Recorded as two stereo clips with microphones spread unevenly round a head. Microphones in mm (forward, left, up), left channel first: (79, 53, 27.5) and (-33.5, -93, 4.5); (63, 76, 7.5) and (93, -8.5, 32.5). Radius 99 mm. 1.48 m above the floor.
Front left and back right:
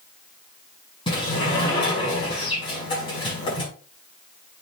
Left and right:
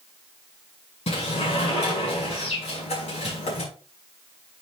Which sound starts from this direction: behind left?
A sliding door, at 1.1 s.